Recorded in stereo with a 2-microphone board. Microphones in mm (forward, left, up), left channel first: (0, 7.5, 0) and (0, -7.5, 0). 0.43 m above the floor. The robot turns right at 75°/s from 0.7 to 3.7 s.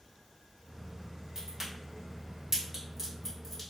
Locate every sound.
1.4 s a crack: 25° right (ahead or behind), 1.5 m; by 3.6 s 20° left (ahead or behind), 1.5 m